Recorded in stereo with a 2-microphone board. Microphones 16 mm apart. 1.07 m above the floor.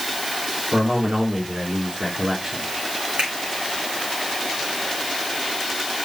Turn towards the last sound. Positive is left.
turn(degrees=-75)  # may be behind; listen again after turning